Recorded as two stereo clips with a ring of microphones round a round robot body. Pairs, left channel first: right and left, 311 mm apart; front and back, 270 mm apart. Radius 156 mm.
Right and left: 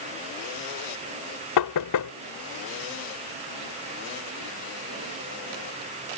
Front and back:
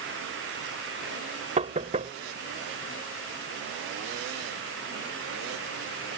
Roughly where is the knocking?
Behind right.